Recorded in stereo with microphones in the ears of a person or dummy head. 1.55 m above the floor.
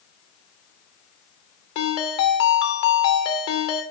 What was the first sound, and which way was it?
A ringtone, 25° left (ahead or behind).